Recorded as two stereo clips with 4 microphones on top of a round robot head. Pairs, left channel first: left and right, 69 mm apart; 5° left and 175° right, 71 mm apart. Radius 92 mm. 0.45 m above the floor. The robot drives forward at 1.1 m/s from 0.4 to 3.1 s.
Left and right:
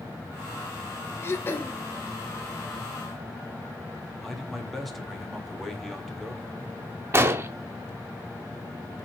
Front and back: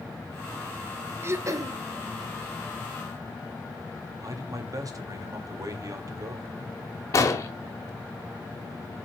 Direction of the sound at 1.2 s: 140° left.